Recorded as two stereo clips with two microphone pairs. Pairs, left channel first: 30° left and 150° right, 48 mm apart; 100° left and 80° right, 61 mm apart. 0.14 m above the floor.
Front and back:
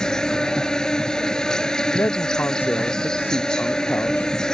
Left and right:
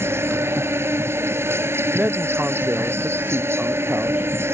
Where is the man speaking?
15° right.